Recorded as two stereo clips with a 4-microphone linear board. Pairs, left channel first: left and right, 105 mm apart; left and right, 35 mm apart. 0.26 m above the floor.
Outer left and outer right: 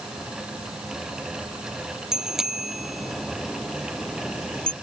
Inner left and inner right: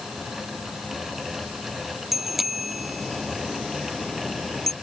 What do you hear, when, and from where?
2.1 s a bicycle bell: 5° right (ahead or behind); by 4.7 s 10° left (ahead or behind)